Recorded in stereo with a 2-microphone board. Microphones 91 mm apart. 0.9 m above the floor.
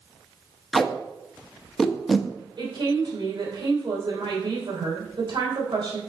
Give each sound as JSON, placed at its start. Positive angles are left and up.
{"t": 0.7, "sound": "tape being pulled", "side_deg": 5, "distance_m": 0.7}
{"t": 2.6, "sound": "a woman speaking", "side_deg": -65, "distance_m": 3.0}